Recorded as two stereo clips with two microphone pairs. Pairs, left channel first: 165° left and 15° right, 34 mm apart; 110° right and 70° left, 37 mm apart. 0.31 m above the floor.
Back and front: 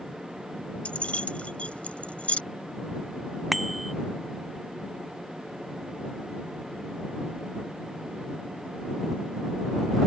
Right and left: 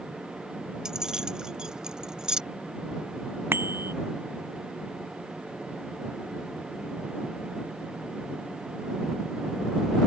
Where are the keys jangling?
135° left.